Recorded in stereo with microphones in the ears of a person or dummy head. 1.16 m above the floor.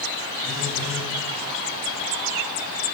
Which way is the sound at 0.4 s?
5° left (ahead or behind).